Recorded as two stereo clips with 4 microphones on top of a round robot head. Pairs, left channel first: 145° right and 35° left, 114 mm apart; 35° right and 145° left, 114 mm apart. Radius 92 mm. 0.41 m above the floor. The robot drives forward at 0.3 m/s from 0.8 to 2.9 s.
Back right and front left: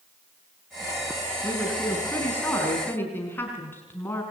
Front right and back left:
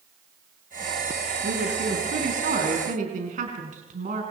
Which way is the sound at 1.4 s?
140° left.